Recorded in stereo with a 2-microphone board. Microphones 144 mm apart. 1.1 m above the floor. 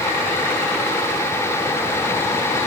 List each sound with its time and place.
Only background noise.